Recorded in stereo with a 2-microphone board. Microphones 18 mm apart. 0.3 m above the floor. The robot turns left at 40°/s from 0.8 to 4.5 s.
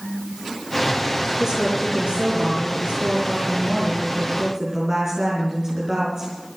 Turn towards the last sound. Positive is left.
turn(degrees=-150)